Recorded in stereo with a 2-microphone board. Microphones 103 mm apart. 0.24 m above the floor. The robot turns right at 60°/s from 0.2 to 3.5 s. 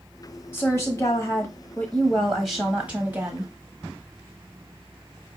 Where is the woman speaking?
25° left (ahead or behind), 1.0 m; by 3.5 s 25° right (ahead or behind), 1.0 m.